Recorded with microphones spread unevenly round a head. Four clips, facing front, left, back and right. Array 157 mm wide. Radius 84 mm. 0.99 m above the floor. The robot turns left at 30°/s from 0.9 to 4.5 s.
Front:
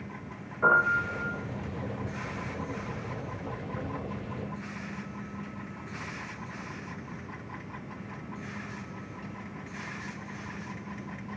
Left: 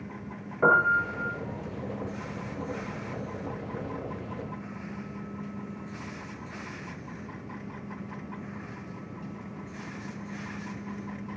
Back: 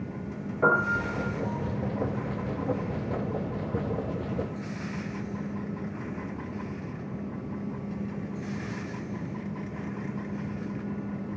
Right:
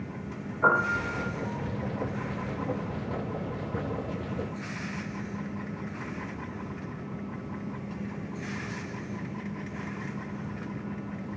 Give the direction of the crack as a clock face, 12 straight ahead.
I don't hear a crack.